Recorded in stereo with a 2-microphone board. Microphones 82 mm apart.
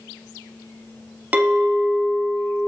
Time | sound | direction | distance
1.3 | a clink | 20° right (ahead or behind) | 0.8 m